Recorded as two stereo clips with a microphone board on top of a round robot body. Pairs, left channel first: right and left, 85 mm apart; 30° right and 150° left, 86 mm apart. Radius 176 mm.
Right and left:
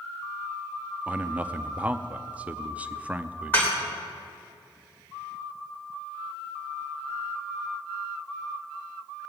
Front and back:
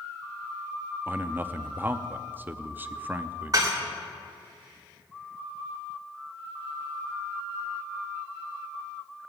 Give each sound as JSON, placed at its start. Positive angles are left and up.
{"t": 1.1, "sound": "a man speaking", "azimuth_deg": 135, "distance_m": 0.8}
{"t": 3.5, "sound": "dishes clattering", "azimuth_deg": -160, "distance_m": 2.5}